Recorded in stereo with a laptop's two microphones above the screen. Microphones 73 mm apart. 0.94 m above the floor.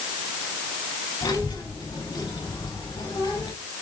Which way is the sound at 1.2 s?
80° left.